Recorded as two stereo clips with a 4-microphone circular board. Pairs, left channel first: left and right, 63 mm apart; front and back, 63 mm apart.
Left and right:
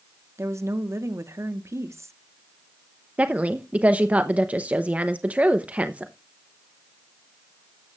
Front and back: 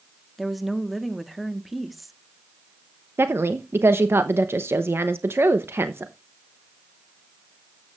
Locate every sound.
0.4 s a woman speaking: 90° right, 1.1 m
3.2 s a woman speaking: 150° right, 0.7 m